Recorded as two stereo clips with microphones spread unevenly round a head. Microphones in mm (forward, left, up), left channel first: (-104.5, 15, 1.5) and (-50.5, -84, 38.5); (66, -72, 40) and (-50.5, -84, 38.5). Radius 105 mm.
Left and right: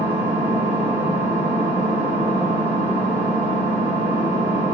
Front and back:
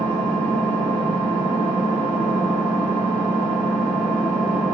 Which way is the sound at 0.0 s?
160° right.